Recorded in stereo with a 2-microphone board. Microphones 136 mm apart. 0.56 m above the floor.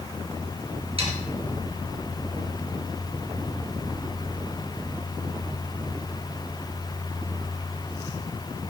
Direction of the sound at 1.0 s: 45° right (ahead or behind).